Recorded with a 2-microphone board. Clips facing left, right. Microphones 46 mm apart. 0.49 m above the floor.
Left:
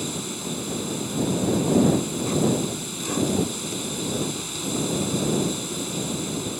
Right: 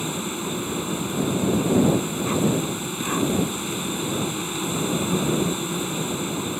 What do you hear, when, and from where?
0.0 s an insect: 25° right (ahead or behind)